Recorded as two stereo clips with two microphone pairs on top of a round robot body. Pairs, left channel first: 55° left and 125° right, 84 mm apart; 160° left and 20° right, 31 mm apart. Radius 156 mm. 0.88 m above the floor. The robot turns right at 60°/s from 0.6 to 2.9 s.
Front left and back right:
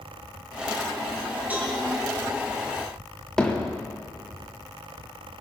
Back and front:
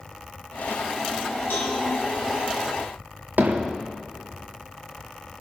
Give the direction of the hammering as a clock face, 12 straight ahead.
1 o'clock.